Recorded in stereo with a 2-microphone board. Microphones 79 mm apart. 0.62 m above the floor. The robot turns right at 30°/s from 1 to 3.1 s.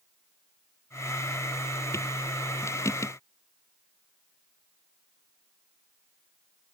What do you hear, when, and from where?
Only background noise.